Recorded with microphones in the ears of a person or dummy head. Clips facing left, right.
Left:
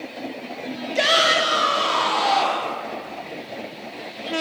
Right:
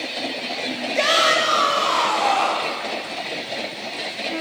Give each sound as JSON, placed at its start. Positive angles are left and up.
{"t": 0.9, "sound": "a shout", "side_deg": 10, "distance_m": 1.6}